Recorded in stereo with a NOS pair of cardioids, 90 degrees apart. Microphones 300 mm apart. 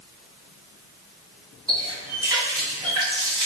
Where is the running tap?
15° right, 1.5 m.